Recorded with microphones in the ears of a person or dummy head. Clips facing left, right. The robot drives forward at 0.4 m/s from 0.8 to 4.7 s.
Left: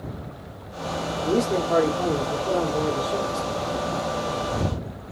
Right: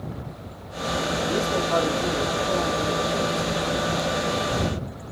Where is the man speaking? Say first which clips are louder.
Left 6 dB; 80° left, 1.4 m; by 3.7 s 50° left (ahead or behind), 1.8 m.